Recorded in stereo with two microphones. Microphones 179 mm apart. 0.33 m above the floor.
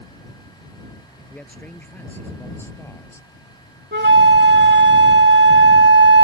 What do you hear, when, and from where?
1.3 s a man speaking: 5° left (ahead or behind); by 3.3 s 15° left (ahead or behind)
3.9 s a flute: 80° right